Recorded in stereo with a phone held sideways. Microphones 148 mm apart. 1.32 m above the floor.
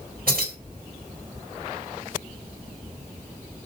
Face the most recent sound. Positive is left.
turn(degrees=-80)